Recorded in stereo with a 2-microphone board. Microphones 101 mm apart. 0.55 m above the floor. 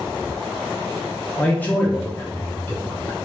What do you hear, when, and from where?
1.4 s a man speaking: 15° left (ahead or behind), 0.7 m